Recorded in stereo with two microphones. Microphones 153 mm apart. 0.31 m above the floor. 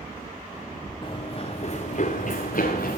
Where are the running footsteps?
30° left (ahead or behind), 1.5 m; by 3.0 s 75° left (ahead or behind), 1.7 m.